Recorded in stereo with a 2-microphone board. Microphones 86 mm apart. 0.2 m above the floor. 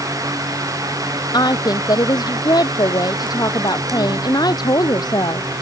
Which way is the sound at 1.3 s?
50° left (ahead or behind).